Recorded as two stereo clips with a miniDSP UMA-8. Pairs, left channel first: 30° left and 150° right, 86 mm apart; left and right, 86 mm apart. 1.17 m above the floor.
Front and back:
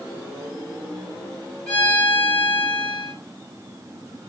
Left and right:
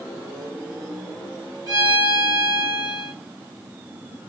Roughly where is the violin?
Ahead right.